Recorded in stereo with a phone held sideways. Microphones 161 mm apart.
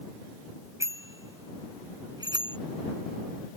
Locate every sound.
0.8 s a bicycle bell: 15° right (ahead or behind); by 2.6 s 25° right (ahead or behind)